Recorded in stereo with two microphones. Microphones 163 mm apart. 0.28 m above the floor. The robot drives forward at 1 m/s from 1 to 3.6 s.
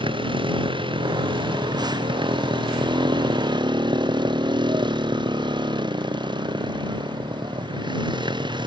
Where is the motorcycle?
30° right (ahead or behind).